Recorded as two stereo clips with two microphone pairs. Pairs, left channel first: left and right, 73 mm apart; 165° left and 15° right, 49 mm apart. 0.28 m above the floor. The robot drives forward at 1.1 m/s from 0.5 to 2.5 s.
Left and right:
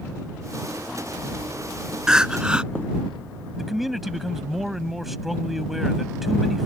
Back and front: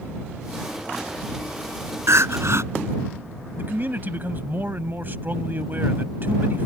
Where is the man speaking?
Straight ahead.